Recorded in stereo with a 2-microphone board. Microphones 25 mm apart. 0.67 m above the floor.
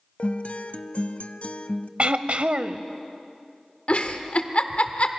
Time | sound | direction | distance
0.2 | a guitar | 60° left (ahead or behind) | 0.8 m
2.0 | throat clearing | 55° right (ahead or behind) | 0.7 m
3.9 | a giggle | 50° left (ahead or behind) | 1.1 m